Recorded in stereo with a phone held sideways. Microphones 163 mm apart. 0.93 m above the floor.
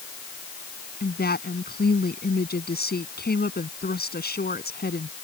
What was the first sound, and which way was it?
A woman speaking, 70° left (ahead or behind).